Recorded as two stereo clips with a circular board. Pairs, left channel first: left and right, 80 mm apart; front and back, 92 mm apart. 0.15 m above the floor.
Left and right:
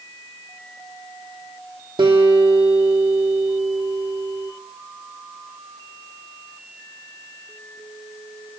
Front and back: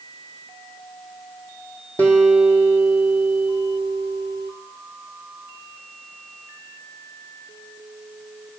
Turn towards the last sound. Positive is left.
turn(degrees=-75)